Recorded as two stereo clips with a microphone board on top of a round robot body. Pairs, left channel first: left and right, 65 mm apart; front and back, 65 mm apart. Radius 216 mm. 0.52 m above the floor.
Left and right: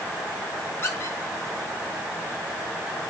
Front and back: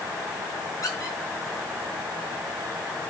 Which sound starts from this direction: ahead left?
A squeak, at 0.8 s.